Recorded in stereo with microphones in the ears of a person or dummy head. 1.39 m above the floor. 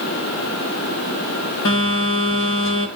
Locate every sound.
1.6 s a phone buzzing: 65° left (ahead or behind), 2.5 m